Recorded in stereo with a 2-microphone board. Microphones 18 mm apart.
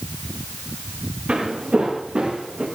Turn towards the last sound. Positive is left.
turn(degrees=-75)  # may be behind; listen again after turning